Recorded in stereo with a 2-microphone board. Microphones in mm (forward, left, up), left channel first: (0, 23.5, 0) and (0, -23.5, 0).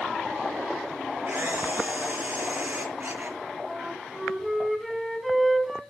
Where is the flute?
5° right (ahead or behind), 2 m.